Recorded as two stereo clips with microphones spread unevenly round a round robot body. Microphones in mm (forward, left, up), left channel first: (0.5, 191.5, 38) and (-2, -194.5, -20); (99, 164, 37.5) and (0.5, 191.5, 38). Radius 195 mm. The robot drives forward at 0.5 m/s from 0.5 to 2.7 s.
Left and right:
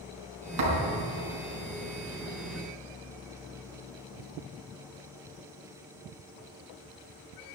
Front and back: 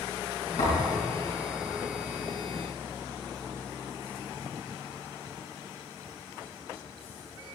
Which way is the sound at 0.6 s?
60° right.